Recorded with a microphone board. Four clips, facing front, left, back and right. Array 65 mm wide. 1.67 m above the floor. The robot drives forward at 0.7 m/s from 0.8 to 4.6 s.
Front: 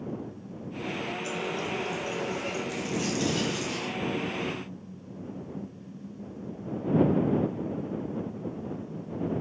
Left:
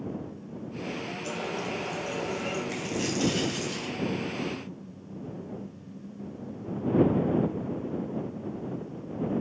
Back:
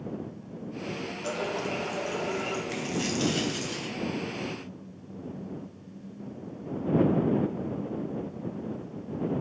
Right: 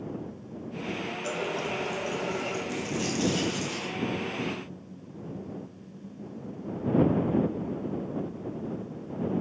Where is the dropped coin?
150° left, 2.5 m; by 3.9 s 160° left, 3 m.